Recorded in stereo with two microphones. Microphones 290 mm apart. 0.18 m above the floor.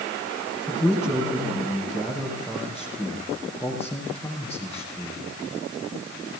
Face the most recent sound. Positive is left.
turn(degrees=10)  # may be behind; listen again after turning